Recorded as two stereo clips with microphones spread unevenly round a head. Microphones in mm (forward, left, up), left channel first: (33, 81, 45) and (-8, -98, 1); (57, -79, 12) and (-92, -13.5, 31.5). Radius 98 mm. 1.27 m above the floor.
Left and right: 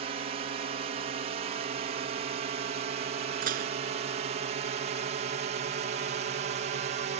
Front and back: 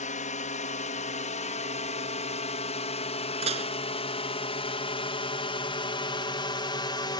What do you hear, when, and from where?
0.0 s a drone: 55° right; by 7.2 s 80° right
3.4 s dishes clattering: 155° right